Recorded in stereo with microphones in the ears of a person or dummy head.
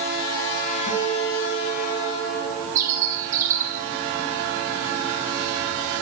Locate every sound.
0.9 s a guitar: 75° left (ahead or behind), 8 m
2.8 s a bird: 20° right (ahead or behind), 6.5 m